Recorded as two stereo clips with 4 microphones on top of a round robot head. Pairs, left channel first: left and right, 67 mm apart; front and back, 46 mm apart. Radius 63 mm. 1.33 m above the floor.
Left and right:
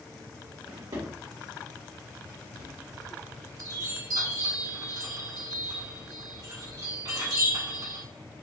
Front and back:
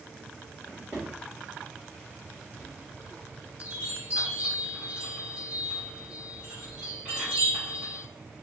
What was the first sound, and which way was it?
A drawer, 110° right.